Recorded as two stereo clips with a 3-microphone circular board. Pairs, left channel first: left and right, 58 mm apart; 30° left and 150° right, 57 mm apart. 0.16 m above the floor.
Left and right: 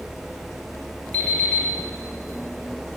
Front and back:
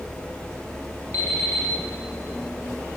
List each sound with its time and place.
1.1 s an alarm clock: 30° left, 1.8 m